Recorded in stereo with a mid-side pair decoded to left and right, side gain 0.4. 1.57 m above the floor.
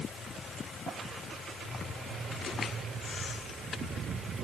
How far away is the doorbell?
I don't hear a doorbell.